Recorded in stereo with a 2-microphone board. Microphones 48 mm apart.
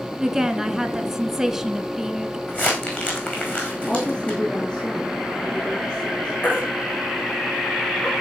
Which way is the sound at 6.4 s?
40° left (ahead or behind).